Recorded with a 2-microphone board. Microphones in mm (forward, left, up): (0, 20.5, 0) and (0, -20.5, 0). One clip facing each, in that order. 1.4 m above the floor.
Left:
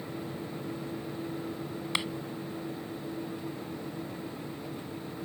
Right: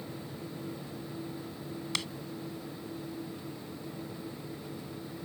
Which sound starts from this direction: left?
A clap, at 1.9 s.